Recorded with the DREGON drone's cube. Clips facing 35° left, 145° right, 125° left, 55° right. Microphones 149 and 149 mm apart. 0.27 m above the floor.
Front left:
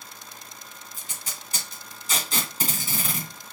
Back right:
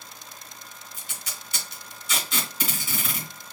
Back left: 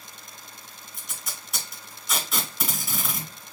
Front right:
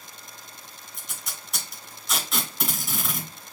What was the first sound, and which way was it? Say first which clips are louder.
Tape being pulled: even, even; 40° left.